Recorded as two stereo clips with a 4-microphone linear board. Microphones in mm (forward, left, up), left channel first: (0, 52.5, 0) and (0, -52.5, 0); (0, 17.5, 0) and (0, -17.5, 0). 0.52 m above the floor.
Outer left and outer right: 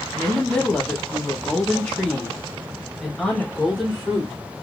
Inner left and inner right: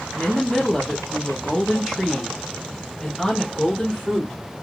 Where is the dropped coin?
I don't hear a dropped coin.